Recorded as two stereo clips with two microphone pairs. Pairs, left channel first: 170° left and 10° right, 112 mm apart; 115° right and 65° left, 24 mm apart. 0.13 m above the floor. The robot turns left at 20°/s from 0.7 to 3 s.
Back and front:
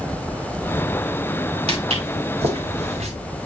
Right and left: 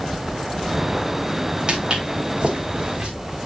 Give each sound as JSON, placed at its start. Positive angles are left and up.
{"t": 1.7, "sound": "footsteps", "azimuth_deg": 20, "distance_m": 2.0}